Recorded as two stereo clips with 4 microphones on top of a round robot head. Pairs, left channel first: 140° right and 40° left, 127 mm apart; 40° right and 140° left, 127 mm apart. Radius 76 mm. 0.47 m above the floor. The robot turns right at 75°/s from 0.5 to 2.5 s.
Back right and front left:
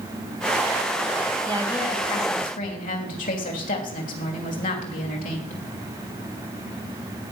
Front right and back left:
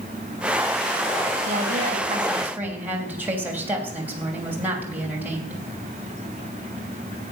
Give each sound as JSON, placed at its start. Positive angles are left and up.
{"t": 1.4, "sound": "a woman speaking", "azimuth_deg": 135, "distance_m": 3.0}